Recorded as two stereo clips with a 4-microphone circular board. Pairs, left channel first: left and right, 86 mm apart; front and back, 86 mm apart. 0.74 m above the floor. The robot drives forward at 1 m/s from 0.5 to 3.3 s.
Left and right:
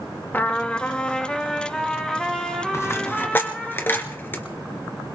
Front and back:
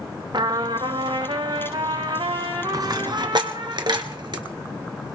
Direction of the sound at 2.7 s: 145° left.